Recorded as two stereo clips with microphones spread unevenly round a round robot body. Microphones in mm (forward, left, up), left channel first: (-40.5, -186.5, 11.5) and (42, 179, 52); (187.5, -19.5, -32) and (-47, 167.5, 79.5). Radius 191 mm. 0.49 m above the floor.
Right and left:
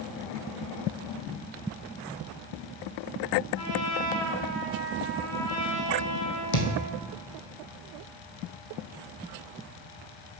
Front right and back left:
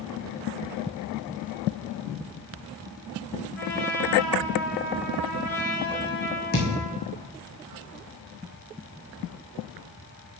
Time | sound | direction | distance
3.5 | a trumpet | 100° right | 5 m
6.5 | a thud | 110° right | 2.0 m